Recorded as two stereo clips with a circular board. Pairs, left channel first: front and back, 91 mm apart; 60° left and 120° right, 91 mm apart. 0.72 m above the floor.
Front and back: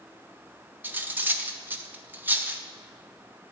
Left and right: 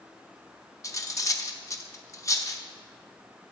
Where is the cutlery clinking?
110° left, 0.6 m.